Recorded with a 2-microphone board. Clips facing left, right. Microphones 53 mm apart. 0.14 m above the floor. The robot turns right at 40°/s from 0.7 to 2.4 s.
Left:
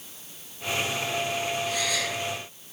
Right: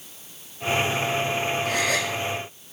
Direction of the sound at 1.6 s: 80° right.